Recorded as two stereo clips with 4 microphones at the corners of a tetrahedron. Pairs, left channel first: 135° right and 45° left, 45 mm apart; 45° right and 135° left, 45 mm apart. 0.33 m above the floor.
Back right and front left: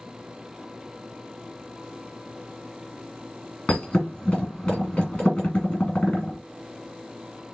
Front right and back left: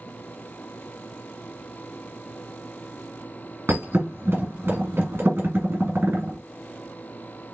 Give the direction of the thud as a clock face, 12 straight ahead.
7 o'clock.